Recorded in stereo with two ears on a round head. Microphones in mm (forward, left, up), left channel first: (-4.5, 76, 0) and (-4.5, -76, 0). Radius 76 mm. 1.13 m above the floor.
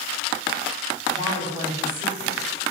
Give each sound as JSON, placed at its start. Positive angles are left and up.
{"t": 1.1, "sound": "a woman speaking", "side_deg": -25, "distance_m": 9.0}